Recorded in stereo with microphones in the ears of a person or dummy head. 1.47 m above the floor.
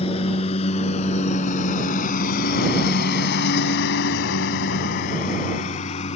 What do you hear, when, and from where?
0.0 s a lawn mower: 35° left (ahead or behind); by 6.2 s 45° left (ahead or behind)